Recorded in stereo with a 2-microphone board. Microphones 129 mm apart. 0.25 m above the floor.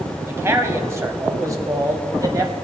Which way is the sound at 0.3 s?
20° right (ahead or behind).